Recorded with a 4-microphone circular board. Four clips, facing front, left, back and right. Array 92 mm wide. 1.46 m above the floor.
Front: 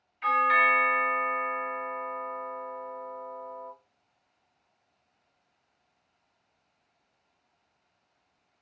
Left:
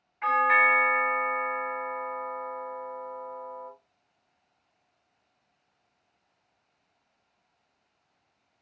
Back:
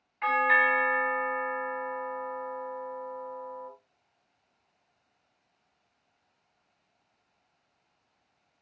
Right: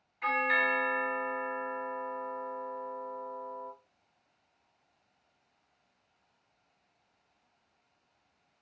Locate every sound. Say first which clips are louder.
0.2 s a doorbell: left 7 dB, front 1 dB; 155° left, 1.3 m